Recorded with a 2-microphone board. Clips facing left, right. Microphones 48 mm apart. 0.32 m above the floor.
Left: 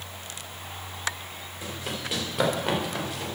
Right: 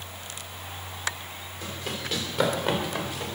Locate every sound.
1.6 s running footsteps: 10° left (ahead or behind), 4 m; by 3.4 s centre (ahead or behind), 3 m